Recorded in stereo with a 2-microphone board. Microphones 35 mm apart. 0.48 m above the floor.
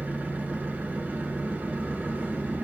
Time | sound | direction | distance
0.0 | an engine running | 60° right (ahead or behind) | 0.8 m